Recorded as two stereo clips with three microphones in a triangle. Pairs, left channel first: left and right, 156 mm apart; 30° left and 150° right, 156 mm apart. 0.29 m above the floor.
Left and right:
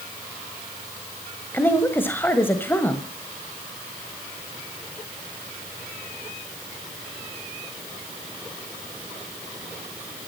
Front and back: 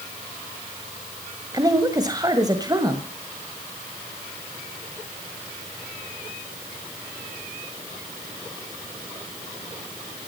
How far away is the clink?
I don't hear a clink.